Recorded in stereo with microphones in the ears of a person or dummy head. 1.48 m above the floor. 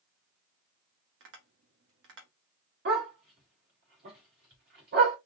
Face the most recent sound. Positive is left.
turn(degrees=-55)  # may be behind; listen again after turning